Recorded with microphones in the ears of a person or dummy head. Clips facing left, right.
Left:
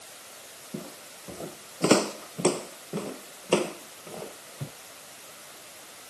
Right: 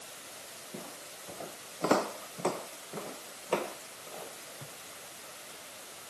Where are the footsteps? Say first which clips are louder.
Left 6 dB; 35° left (ahead or behind); by 4.7 s 55° left (ahead or behind).